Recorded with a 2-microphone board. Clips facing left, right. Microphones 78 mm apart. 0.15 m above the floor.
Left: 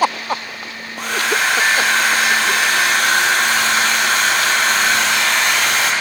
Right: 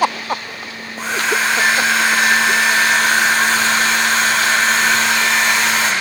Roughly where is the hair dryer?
Left.